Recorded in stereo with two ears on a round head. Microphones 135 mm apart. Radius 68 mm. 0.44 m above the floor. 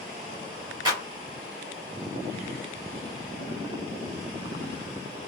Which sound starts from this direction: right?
A clap, at 0.8 s.